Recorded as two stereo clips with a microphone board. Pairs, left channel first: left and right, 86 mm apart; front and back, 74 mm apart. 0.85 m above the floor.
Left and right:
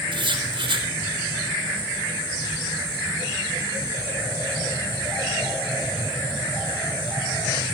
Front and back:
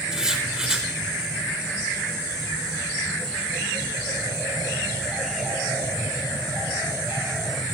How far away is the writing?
About 4 m.